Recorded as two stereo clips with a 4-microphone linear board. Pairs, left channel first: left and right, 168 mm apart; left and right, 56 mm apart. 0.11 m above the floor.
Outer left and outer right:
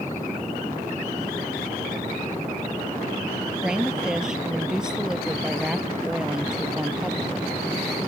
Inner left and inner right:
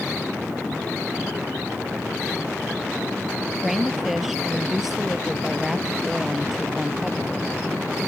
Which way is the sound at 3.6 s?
5° right (ahead or behind).